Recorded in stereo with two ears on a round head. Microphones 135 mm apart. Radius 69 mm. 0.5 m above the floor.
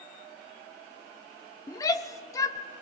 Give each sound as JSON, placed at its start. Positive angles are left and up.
{"t": 1.7, "sound": "a shout", "side_deg": 20, "distance_m": 1.1}